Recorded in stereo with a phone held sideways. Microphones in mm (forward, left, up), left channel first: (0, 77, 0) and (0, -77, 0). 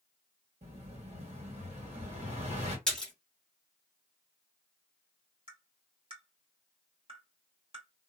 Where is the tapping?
40° right (ahead or behind), 1.6 m.